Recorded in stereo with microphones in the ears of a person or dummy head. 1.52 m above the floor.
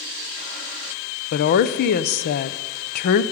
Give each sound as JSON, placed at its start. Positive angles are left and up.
{"t": 1.3, "sound": "a woman speaking", "side_deg": 55, "distance_m": 0.6}